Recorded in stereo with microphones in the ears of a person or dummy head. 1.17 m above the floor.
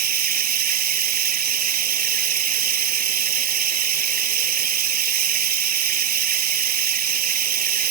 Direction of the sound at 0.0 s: 45° right (ahead or behind).